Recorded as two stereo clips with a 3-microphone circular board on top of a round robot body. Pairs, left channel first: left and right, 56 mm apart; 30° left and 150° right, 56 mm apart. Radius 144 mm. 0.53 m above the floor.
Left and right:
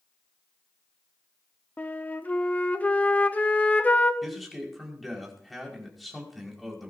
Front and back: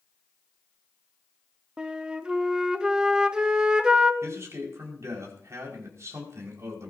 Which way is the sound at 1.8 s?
140° left.